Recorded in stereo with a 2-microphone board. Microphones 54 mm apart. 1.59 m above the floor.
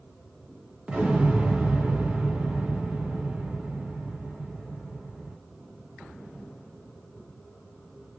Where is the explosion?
20° right (ahead or behind), 1.0 m.